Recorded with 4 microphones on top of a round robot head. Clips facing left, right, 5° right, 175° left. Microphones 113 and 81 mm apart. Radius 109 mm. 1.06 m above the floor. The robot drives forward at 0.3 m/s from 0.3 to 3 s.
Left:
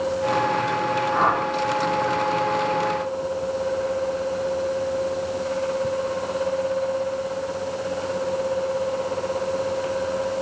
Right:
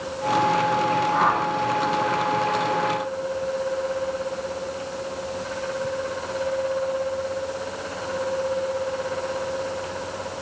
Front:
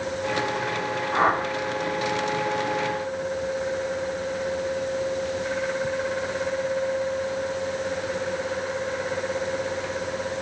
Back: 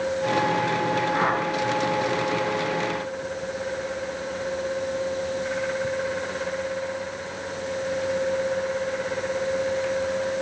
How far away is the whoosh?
About 2 m.